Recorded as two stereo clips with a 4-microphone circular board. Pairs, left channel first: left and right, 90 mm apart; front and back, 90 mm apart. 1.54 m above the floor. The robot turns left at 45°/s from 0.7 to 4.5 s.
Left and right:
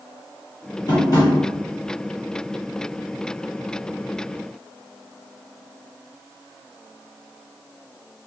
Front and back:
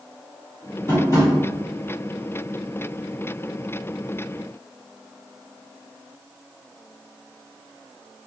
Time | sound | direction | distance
0.9 | tapping | 55° left | 1.4 m